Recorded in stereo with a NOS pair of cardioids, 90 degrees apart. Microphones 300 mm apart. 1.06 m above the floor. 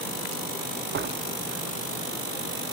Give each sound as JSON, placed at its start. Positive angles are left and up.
{"t": 0.9, "sound": "a door slam", "azimuth_deg": -40, "distance_m": 1.4}